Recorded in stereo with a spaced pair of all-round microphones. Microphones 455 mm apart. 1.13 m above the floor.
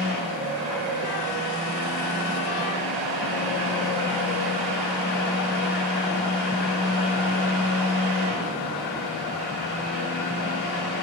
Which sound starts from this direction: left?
A fan, at 0.0 s.